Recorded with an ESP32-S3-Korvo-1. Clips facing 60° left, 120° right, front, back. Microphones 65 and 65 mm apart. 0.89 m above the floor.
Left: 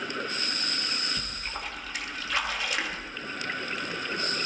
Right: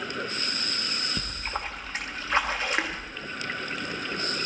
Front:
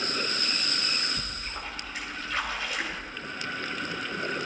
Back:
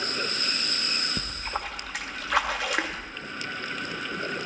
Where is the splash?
175° right, 1.1 m.